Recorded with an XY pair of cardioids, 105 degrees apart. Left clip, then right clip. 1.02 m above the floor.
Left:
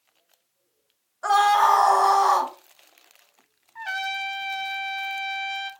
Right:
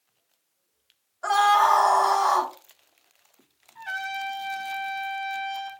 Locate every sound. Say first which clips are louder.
1.2 s a scream: left 1 dB; 10° left, 1.0 m
3.8 s a trumpet: left 3 dB; 55° left, 0.7 m